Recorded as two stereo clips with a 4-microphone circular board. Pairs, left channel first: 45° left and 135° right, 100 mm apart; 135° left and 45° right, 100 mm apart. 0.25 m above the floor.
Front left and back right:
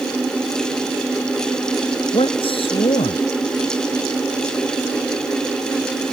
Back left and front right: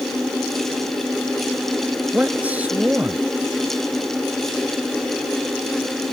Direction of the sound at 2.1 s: 30° left.